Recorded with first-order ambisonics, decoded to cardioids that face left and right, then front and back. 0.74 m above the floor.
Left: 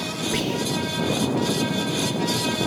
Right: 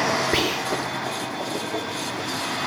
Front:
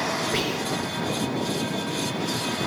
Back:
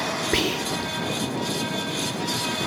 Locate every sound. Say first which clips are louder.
0.3 s whispering: right 3 dB, back 2 dB; 145° right, 1.5 m